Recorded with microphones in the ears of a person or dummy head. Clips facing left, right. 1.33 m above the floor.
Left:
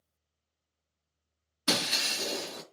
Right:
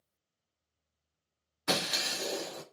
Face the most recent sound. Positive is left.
turn(degrees=45)  # may be behind; listen again after turning